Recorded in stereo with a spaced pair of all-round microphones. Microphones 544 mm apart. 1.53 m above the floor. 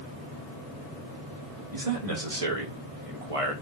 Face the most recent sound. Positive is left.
turn(degrees=-75)  # may be behind; listen again after turning